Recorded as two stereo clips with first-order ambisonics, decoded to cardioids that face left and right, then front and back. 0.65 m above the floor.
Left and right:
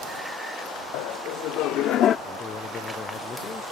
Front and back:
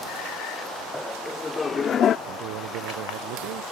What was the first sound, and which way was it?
Laughter, 90° left.